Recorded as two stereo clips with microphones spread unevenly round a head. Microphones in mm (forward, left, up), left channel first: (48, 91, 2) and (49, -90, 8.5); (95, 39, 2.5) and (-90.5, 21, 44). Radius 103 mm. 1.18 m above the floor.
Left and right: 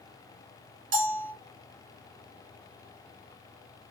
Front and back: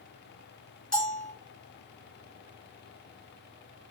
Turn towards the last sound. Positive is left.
turn(degrees=-85)